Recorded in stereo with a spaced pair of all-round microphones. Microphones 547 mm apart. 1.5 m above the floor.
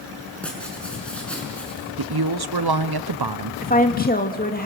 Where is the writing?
Centre (ahead or behind), 5.5 m.